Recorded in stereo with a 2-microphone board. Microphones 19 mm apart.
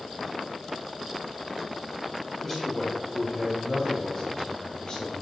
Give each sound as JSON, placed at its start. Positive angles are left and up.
{"t": 2.4, "sound": "a man speaking", "side_deg": 5, "distance_m": 4.5}